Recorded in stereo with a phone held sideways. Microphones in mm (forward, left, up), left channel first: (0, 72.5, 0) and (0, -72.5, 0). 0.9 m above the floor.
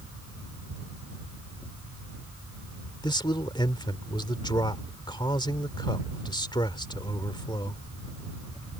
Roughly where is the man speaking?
Left.